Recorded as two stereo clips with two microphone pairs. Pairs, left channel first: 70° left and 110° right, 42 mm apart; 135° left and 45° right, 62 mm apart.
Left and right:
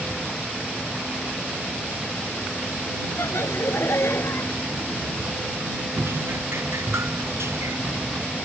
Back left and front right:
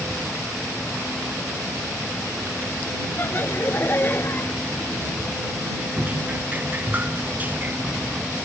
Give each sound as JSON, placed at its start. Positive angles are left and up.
{"t": 3.2, "sound": "laughter", "azimuth_deg": 80}
{"t": 6.0, "sound": "dripping", "azimuth_deg": -105}